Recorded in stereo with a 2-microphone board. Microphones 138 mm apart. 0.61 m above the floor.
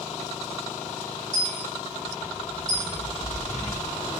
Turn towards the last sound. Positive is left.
turn(degrees=-75)  # may be behind; listen again after turning